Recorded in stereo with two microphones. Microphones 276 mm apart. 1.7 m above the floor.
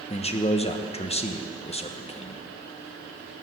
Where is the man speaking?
20° left (ahead or behind), 1.1 m.